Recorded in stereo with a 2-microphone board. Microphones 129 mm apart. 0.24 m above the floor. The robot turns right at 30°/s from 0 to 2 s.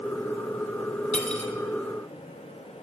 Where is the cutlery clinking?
65° left (ahead or behind), 1.2 m; by 1.5 s 60° left (ahead or behind), 1.2 m.